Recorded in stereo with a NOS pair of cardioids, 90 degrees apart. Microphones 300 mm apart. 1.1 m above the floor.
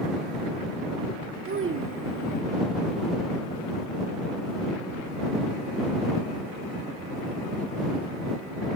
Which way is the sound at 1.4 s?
40° right.